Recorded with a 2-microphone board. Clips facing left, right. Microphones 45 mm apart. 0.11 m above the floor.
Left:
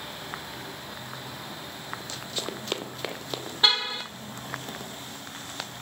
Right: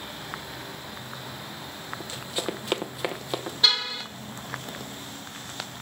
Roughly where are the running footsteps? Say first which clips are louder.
Right 5 dB; right.